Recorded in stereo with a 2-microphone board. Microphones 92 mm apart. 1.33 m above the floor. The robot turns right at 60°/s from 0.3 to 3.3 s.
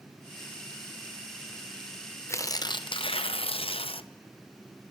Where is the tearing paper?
30° left, 0.6 m; by 4.1 s 90° left, 0.6 m.